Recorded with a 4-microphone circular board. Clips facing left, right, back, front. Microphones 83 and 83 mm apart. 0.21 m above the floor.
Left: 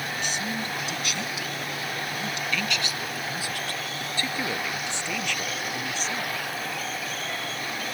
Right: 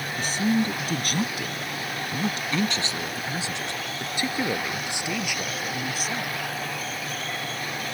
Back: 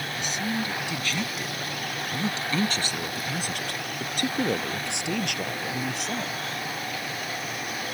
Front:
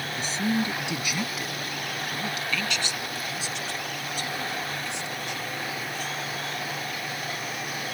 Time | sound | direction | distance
0.2 | a man speaking | 45° right | ?